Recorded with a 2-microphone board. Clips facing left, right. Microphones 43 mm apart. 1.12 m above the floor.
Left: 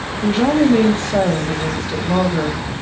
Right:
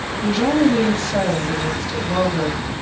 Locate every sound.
0.2 s a woman speaking: 30° left (ahead or behind), 1.2 m